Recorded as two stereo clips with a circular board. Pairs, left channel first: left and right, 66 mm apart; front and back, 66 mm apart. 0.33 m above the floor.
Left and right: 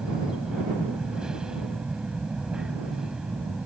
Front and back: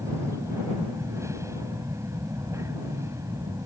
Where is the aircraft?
165° right.